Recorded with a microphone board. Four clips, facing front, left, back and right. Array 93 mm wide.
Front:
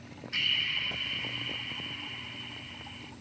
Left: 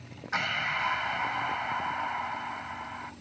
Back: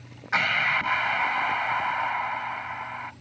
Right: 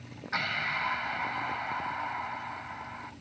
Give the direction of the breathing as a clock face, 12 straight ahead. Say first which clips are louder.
Left 2 dB, back 11 dB; 6 o'clock.